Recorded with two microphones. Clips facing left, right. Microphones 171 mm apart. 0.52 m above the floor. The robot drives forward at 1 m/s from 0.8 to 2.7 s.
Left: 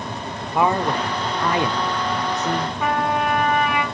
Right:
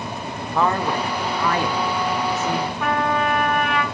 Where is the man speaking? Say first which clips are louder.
Left 1 dB; 15° left (ahead or behind), 1.3 m.